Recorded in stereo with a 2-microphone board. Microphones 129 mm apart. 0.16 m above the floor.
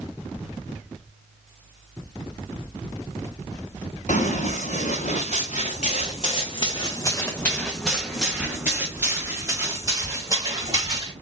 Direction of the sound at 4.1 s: 80° left.